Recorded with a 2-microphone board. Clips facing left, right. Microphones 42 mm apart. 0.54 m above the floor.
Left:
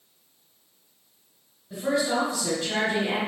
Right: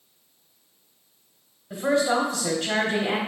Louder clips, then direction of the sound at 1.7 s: Right 3 dB; 65° right (ahead or behind).